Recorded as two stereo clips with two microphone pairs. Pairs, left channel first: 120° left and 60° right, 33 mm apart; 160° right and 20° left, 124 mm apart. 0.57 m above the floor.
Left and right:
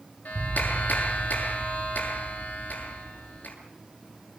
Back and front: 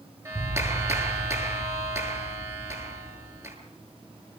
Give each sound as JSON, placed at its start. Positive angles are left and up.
{"t": 0.2, "sound": "a clap", "azimuth_deg": 85, "distance_m": 7.5}